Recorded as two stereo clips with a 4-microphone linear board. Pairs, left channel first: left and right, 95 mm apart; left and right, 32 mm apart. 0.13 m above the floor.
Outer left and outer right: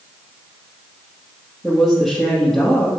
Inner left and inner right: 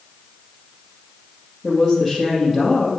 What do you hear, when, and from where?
1.6 s a woman speaking: centre (ahead or behind), 2.5 m